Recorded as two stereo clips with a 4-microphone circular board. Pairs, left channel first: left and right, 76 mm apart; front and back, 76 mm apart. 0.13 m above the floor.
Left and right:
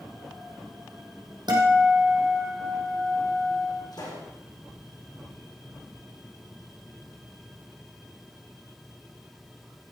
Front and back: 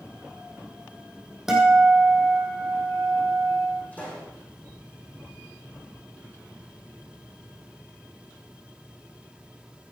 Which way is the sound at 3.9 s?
70° left.